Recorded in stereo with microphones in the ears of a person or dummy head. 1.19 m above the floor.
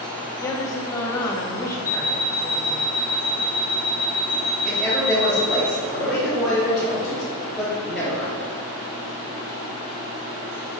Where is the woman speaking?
15° left (ahead or behind), 1.0 m.